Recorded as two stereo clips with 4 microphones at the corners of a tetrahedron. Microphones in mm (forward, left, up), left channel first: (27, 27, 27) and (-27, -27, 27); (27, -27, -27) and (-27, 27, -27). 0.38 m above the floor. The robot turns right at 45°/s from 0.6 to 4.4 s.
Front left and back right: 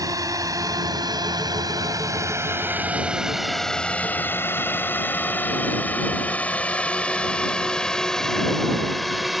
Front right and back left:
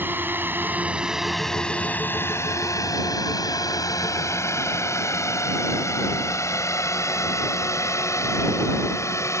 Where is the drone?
165° right; by 9.4 s 50° right.